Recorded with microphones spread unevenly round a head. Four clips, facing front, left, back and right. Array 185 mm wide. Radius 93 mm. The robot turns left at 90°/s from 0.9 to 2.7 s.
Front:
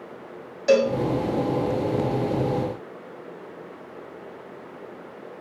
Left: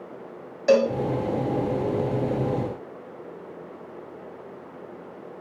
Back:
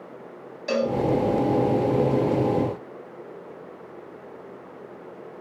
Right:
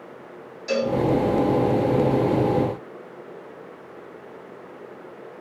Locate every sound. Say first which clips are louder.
0.7 s a cowbell: left 5 dB, front 6 dB; 60° left, 0.8 m